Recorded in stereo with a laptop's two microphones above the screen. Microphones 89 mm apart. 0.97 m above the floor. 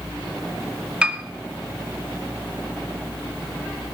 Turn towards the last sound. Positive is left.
turn(degrees=-10)  # may be behind; listen again after turning